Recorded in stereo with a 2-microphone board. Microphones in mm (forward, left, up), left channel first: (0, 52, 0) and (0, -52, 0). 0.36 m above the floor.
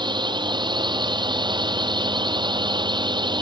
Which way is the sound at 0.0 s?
45° right (ahead or behind).